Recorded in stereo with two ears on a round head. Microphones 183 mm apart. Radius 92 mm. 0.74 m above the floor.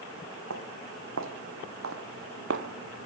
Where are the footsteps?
75° right (ahead or behind), 3 m; by 3.1 s 60° right (ahead or behind), 1.3 m.